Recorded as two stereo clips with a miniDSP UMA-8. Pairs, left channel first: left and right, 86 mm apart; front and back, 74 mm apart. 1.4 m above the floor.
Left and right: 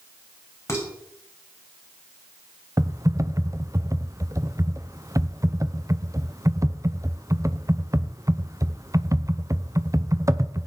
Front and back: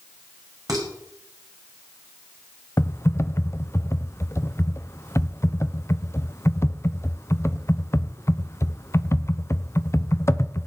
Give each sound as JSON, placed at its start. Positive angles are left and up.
{"t": 0.7, "sound": "dishes clattering", "azimuth_deg": 145, "distance_m": 5.0}
{"t": 2.8, "sound": "typing on a keyboard", "azimuth_deg": -45, "distance_m": 0.8}